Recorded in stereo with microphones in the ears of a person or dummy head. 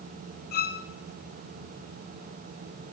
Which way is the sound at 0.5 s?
50° left (ahead or behind).